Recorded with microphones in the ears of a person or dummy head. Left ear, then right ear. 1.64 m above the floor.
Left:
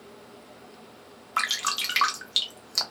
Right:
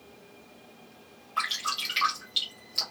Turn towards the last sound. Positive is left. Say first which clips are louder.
# left 3 dB
turn(degrees=50)  # may be behind; listen again after turning